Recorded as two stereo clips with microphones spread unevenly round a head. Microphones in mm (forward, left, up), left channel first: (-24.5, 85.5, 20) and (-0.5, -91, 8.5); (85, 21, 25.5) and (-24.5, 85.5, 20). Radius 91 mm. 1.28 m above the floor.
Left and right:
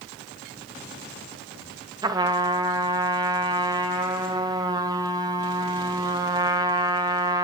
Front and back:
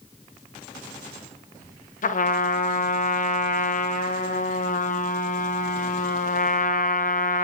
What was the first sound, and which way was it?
A trumpet, 10° right.